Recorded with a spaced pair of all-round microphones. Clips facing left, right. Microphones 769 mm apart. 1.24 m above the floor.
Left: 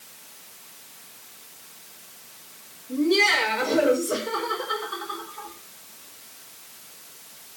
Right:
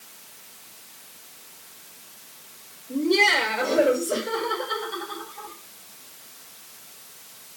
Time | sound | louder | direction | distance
2.9 | laughter | left 1 dB | 40° left (ahead or behind) | 4.5 m